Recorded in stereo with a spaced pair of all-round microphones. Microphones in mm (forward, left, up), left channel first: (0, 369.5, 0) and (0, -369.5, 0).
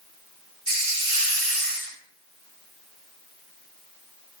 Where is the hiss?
50° right (ahead or behind), 1.4 m.